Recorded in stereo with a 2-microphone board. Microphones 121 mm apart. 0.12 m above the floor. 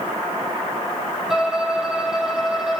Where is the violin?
5° right (ahead or behind), 1.9 m.